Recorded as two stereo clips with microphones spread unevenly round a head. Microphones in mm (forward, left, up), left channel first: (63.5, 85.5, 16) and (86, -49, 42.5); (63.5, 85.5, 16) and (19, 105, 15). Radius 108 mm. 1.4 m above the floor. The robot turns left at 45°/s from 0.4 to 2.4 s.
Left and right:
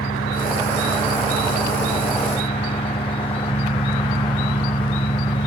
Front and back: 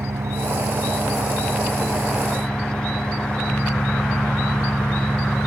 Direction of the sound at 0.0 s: 140° left.